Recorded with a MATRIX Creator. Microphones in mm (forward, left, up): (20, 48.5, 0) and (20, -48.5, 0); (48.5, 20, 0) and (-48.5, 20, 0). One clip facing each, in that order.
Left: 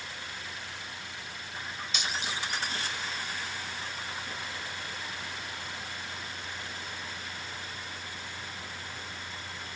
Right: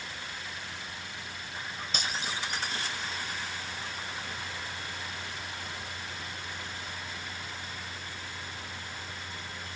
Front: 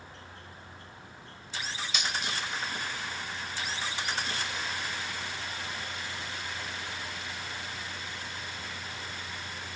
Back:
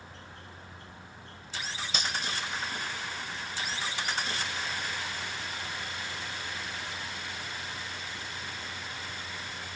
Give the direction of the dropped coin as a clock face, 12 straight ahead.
4 o'clock.